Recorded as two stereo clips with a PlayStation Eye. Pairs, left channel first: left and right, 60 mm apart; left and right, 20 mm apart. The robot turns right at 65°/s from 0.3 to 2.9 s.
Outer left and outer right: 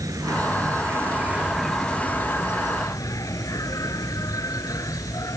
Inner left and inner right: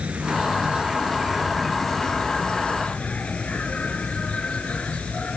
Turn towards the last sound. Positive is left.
turn(degrees=80)